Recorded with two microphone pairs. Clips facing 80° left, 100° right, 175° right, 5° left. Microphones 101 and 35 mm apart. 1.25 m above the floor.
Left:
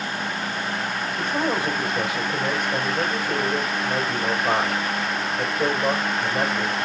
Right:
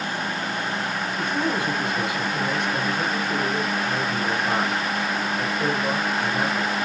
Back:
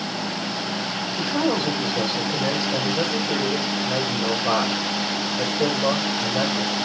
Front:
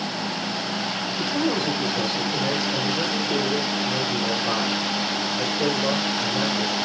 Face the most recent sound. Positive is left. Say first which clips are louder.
# left 1 dB, back 2 dB
turn(degrees=130)